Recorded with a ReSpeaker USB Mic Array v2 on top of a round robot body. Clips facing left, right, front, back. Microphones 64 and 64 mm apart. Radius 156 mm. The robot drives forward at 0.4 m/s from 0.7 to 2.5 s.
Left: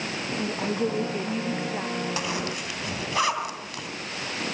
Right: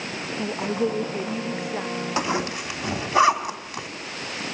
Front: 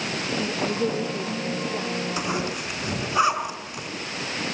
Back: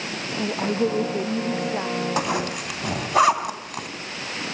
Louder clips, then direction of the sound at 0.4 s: Right 3 dB, back 4 dB; 160° right.